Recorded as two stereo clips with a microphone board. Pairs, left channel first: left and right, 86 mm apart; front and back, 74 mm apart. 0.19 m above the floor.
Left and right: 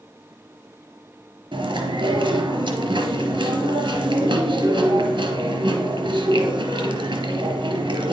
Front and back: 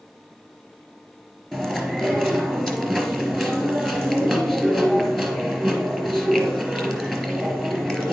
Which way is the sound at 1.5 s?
85° right.